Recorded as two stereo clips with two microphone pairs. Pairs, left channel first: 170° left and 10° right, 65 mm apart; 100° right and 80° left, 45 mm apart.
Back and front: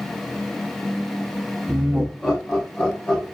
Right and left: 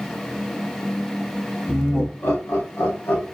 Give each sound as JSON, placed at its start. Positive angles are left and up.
{"t": 1.7, "sound": "laughter", "azimuth_deg": -75, "distance_m": 1.3}